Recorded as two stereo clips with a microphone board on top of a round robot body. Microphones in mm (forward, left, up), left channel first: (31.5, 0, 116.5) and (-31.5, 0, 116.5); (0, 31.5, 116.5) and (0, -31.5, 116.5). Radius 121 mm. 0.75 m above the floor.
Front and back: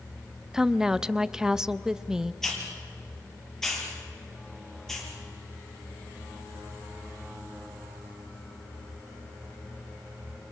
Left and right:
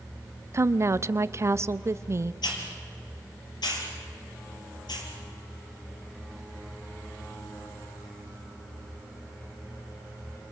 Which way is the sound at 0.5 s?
105° right.